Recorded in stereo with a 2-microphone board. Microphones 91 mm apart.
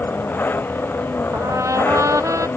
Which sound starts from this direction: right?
A trumpet, at 1.3 s.